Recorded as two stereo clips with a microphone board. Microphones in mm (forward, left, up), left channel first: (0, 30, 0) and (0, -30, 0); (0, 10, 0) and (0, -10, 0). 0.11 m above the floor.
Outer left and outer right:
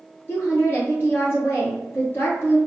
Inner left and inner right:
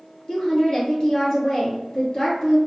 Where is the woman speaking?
40° left (ahead or behind), 1.6 m.